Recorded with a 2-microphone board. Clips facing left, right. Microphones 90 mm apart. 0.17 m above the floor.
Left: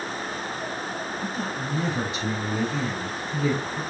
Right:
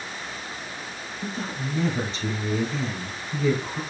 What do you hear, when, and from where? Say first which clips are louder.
1.2 s a woman speaking: left 2 dB; 15° left (ahead or behind), 2.5 m